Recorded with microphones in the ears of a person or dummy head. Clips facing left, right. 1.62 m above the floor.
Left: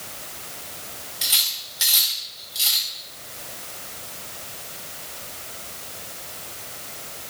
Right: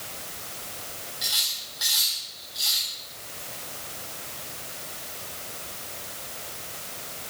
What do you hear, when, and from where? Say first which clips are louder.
1.2 s cutlery clinking: left 1 dB; 35° left (ahead or behind), 1.1 m